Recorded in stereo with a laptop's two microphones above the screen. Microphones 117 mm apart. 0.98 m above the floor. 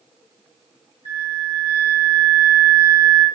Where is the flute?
75° left (ahead or behind), 1.5 m.